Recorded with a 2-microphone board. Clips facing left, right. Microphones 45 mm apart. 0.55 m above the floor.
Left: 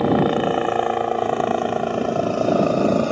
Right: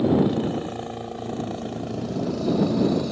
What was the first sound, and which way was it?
A helicopter, 50° left (ahead or behind).